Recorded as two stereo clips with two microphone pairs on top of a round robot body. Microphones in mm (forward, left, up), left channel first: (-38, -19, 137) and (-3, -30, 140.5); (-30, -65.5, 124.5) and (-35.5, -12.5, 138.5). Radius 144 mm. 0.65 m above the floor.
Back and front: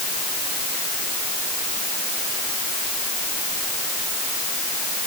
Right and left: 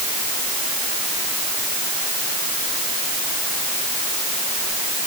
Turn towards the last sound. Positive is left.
No sound to turn to.